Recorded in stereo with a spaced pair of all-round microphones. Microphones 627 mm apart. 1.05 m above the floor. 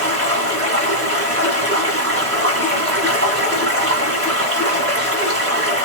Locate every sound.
0.0 s running water: 20° right (ahead or behind), 1.8 m